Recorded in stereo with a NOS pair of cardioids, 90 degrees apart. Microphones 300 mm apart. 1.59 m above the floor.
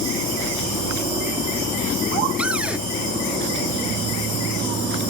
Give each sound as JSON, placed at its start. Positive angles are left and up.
{"t": 2.4, "sound": "a cupboard door", "azimuth_deg": -5}